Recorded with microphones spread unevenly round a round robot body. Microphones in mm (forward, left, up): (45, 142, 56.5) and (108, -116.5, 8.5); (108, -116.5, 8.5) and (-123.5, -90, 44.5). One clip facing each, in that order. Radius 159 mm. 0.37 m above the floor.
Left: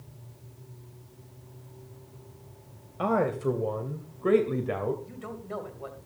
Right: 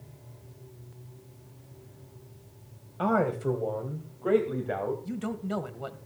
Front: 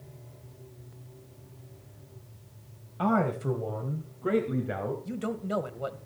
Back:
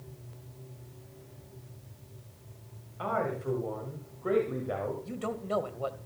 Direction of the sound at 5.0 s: 70° right.